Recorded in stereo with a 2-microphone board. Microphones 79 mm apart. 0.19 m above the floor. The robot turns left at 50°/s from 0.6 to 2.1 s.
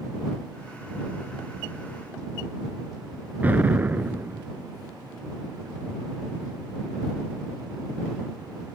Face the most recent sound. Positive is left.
turn(degrees=-25)  # may be behind; listen again after turning